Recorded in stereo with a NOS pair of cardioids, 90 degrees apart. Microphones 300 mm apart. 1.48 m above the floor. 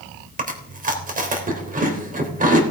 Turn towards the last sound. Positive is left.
turn(degrees=-25)